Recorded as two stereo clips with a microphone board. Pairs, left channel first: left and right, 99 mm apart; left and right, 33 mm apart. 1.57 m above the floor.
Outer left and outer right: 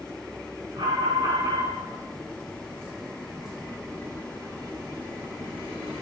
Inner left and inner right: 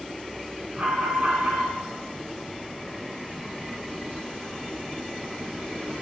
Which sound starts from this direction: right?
An alarm, at 0.8 s.